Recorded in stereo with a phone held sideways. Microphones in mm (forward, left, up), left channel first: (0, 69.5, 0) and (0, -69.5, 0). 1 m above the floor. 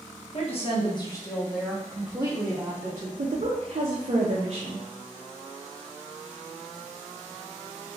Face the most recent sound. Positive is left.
turn(degrees=-50)  # may be behind; listen again after turning